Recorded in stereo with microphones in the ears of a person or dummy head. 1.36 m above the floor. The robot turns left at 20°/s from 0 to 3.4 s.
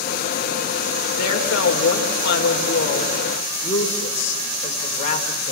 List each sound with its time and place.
1.1 s a woman speaking: 80° left, 4 m; by 5.5 s 35° left, 4 m